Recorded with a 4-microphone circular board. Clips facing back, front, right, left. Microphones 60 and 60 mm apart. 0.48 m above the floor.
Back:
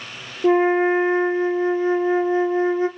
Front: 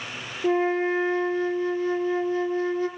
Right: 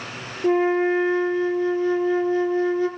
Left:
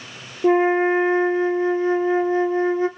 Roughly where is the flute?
Behind left.